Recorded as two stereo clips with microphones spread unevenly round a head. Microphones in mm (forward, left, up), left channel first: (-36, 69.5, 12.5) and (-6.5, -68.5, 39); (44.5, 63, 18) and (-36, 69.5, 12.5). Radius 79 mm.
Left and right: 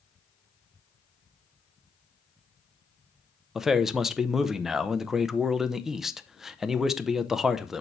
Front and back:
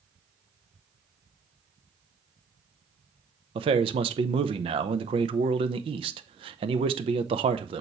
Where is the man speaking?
165° right, 0.7 m.